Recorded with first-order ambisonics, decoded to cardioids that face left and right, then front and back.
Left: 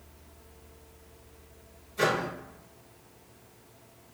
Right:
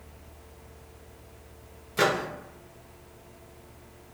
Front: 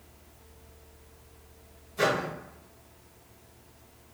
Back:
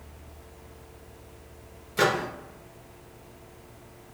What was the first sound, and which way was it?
A microwave, 130° right.